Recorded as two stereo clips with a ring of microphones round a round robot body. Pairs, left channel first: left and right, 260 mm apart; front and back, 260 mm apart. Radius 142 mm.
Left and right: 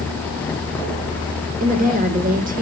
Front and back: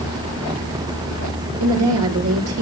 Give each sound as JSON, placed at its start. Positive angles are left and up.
{"t": 1.6, "sound": "a woman speaking", "azimuth_deg": -145, "distance_m": 2.5}